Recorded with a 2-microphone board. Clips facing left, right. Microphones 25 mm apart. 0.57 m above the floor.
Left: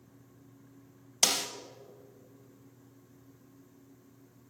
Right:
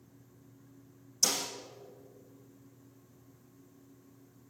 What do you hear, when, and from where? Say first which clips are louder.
1.2 s a snare drum: left 3 dB; 80° left, 0.8 m